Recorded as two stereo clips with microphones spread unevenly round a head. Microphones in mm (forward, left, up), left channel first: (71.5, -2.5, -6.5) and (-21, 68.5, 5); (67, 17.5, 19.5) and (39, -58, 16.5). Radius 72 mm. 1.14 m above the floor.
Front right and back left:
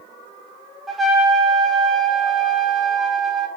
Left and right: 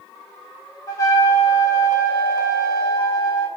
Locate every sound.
0.9 s a trumpet: 60° left, 0.6 m